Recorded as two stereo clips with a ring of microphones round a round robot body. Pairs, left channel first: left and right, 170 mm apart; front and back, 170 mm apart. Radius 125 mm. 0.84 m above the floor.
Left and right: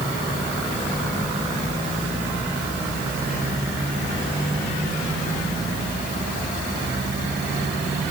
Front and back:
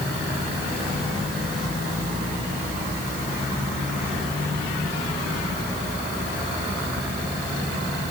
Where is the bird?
I don't hear a bird.